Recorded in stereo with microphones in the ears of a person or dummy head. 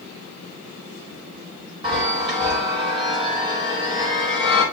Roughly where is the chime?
Right.